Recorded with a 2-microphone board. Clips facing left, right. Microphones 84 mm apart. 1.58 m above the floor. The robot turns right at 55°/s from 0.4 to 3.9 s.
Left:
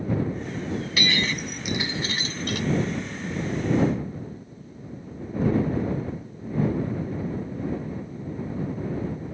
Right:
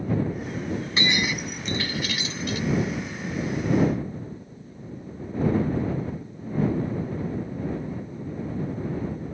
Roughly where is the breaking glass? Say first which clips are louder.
Right 1 dB; ahead right.